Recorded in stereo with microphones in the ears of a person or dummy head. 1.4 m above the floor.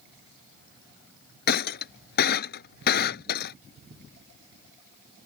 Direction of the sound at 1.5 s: 60° left (ahead or behind).